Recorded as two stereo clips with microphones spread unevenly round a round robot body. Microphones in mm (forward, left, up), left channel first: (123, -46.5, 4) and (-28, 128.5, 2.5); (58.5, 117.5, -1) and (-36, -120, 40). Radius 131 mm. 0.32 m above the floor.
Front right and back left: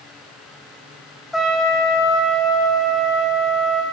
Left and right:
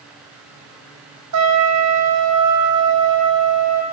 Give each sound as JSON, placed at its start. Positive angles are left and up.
{"t": 1.3, "sound": "a trumpet", "azimuth_deg": -140, "distance_m": 3.5}